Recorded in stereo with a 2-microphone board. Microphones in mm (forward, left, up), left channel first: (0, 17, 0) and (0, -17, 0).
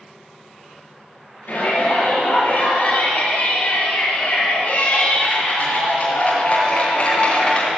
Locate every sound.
1.5 s a shout: 55° left (ahead or behind), 5.5 m; by 7.7 s 30° left (ahead or behind), 2.5 m